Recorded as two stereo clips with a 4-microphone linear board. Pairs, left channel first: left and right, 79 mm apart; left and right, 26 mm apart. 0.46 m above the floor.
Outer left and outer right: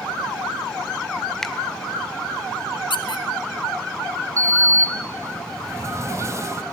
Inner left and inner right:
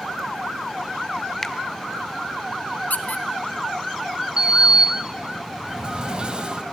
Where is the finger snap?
5° left (ahead or behind), 1.4 m.